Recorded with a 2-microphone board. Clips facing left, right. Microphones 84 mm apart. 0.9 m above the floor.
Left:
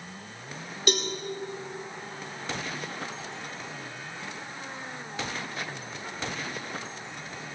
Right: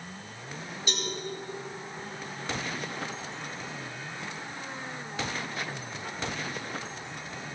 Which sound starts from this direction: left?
A cowbell, at 0.9 s.